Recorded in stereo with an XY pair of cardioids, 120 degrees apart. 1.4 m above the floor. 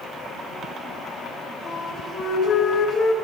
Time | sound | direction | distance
1.6 | a flute | 40° left | 4 m